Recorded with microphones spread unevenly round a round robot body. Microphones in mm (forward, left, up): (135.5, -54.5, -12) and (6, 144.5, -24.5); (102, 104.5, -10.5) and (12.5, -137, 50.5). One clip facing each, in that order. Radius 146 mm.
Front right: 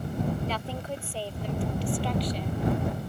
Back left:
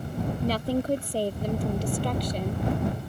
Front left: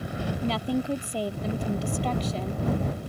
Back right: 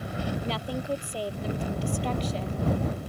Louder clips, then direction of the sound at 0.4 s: Back left 8 dB, front left 5 dB; 70° left.